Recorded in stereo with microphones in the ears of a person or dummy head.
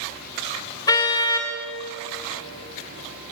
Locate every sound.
0.9 s a car horn: 20° left (ahead or behind), 2 m